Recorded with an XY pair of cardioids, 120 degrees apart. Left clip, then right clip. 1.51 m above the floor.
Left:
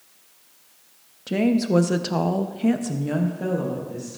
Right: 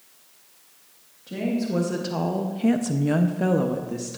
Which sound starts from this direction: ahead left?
A woman speaking, at 1.3 s.